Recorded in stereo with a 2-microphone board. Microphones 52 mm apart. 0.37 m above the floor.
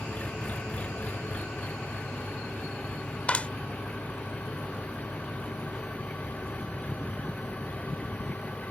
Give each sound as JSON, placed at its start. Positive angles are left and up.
{"t": 0.0, "sound": "an engine running", "side_deg": 30}
{"t": 3.3, "sound": "a clap", "side_deg": 30}